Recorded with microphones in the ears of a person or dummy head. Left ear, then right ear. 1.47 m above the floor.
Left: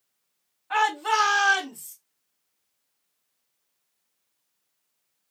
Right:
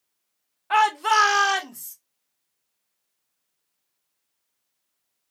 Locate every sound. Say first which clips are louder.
0.7 s a shout: right 4 dB; 45° right (ahead or behind), 0.6 m; by 1.9 s 75° right (ahead or behind), 1.5 m